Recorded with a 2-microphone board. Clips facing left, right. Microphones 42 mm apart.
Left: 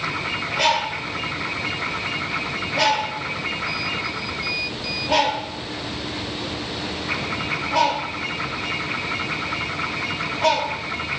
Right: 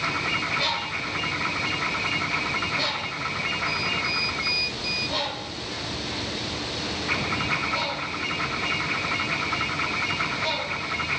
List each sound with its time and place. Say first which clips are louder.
0.6 s a bird: left 6 dB; 80° left, 0.9 m